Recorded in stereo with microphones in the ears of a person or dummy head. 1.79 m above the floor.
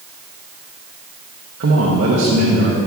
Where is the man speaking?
55° right (ahead or behind), 0.7 m.